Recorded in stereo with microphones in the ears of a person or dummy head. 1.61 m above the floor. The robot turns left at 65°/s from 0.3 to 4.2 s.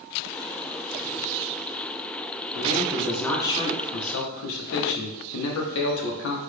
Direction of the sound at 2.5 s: 140° right.